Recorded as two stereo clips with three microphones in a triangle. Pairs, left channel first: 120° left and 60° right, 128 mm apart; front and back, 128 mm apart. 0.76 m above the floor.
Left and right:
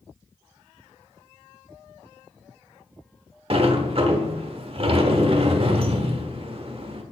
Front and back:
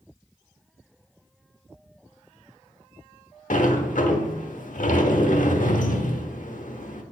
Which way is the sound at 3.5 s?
15° right.